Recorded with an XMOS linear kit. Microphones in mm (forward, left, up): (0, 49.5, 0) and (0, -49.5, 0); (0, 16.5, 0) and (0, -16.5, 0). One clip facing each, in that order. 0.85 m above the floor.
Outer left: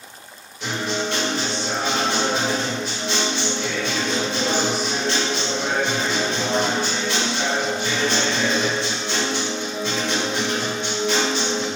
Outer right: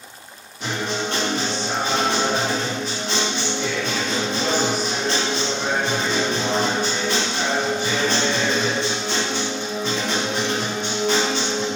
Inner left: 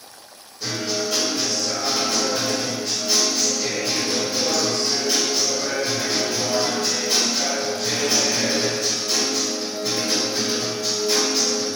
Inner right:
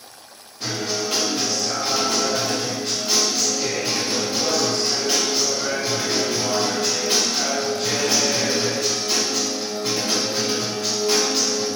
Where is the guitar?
45° right (ahead or behind), 2.0 m.